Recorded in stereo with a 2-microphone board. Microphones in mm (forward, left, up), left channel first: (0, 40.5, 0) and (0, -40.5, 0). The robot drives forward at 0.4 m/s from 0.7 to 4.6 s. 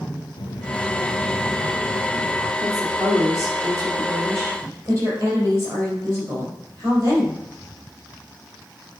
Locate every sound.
0.4 s a child speaking: 65° left (ahead or behind), 1.4 m; by 2.5 s 55° left (ahead or behind), 1.6 m
2.6 s a woman speaking: 45° right (ahead or behind), 3.5 m; by 7.4 s 35° right (ahead or behind), 4 m